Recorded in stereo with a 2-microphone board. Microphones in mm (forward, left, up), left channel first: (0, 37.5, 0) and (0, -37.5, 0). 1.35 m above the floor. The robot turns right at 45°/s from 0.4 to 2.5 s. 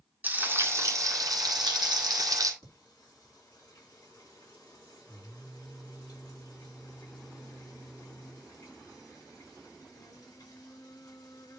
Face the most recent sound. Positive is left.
turn(degrees=60)  # may be behind; listen again after turning